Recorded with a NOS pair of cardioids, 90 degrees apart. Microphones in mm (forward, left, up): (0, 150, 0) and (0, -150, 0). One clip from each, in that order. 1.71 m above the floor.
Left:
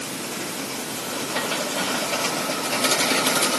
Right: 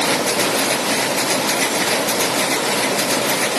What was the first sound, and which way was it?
Only background noise.